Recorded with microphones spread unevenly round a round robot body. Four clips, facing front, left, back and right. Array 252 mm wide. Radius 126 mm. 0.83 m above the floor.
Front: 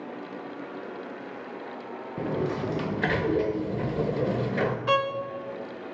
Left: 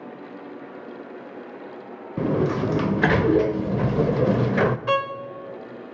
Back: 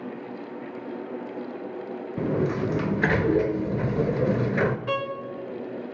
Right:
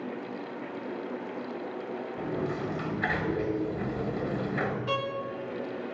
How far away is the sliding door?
About 0.7 m.